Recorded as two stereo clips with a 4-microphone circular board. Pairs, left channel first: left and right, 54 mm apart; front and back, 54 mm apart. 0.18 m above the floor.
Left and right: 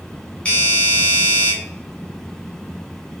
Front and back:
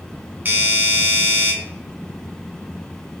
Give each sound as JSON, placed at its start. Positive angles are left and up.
{"t": 0.5, "sound": "a doorbell", "azimuth_deg": 145, "distance_m": 1.8}